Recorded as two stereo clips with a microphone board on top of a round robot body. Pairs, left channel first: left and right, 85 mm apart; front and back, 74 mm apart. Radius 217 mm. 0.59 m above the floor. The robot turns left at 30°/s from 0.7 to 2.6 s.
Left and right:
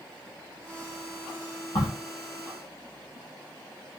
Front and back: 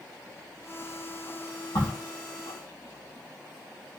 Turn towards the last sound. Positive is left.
turn(degrees=25)